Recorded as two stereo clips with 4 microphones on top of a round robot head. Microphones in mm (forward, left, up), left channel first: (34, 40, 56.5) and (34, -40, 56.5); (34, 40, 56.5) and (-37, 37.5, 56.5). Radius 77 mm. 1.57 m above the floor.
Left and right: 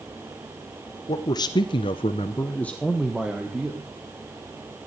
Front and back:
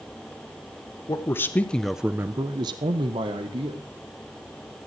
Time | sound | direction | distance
1.1 | a man speaking | 50° left | 1.1 m